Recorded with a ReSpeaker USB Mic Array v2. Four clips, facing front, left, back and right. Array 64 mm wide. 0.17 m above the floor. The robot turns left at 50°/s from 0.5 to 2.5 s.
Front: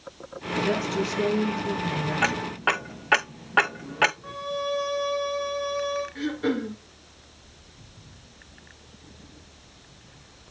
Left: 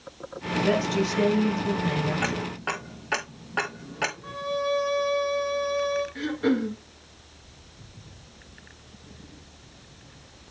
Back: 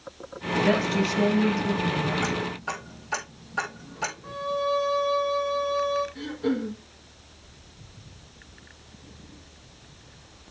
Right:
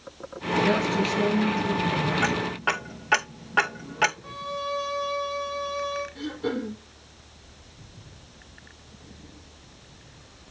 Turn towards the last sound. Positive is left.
turn(degrees=55)